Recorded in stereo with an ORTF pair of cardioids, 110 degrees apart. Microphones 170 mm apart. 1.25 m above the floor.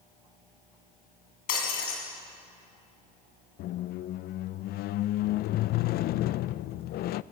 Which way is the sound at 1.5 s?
60° left.